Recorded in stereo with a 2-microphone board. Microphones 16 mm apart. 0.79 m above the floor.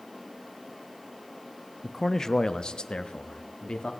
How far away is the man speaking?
About 0.5 m.